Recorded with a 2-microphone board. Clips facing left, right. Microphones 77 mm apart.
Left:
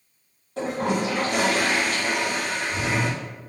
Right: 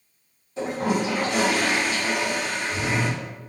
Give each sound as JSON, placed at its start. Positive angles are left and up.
{"t": 0.6, "sound": "a toilet flushing", "side_deg": 55, "distance_m": 1.9}